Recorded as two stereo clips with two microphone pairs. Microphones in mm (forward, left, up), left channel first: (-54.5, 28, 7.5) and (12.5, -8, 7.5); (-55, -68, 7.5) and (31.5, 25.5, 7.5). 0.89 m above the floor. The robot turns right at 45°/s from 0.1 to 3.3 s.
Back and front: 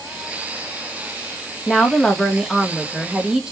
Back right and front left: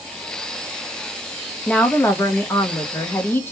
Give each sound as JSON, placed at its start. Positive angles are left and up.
{"t": 1.7, "sound": "a woman speaking", "azimuth_deg": -170, "distance_m": 0.8}